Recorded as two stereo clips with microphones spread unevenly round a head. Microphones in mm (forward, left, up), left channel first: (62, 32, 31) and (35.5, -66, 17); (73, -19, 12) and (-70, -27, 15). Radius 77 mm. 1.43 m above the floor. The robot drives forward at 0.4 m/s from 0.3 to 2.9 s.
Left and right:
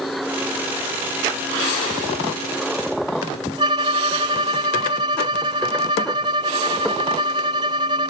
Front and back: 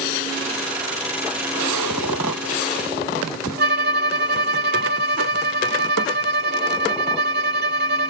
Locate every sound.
3.6 s a violin: 170° right